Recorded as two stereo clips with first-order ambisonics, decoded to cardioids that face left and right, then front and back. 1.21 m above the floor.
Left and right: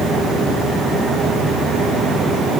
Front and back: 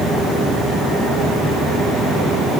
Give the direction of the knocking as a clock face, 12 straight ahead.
I don't hear knocking.